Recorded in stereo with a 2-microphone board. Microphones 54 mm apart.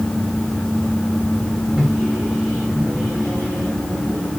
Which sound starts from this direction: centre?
A microwave, at 1.8 s.